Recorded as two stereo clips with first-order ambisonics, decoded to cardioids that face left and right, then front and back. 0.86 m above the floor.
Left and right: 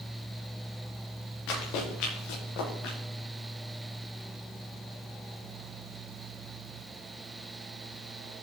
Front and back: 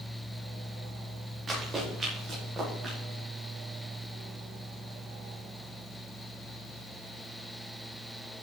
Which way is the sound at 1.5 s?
105° left.